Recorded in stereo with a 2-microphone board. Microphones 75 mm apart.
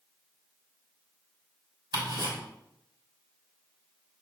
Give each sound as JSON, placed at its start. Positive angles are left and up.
{"t": 1.9, "sound": "ticking", "side_deg": -70, "distance_m": 3.5}